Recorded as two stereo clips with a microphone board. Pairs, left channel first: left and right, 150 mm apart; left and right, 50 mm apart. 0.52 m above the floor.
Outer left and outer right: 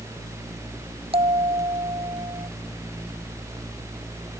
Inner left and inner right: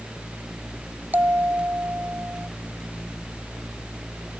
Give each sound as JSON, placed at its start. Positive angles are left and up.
{"t": 1.1, "sound": "a bell", "side_deg": -40}